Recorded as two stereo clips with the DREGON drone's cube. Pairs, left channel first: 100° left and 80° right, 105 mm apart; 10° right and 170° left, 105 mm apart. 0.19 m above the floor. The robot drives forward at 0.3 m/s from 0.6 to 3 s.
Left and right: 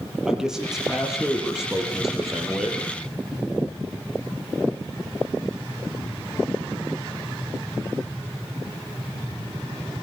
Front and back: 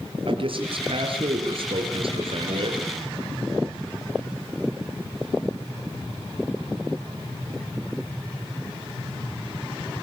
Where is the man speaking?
165° right, 5 m.